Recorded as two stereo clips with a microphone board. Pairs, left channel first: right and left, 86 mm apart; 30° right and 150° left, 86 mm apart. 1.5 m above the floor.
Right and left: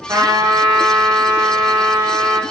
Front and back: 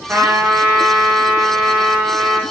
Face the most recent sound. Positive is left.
turn(degrees=90)